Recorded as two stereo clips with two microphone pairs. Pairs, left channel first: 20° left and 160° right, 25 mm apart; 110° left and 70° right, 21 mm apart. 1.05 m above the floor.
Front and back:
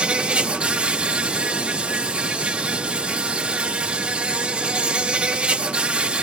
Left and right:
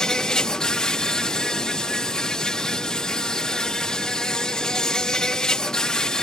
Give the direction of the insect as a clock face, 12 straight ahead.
7 o'clock.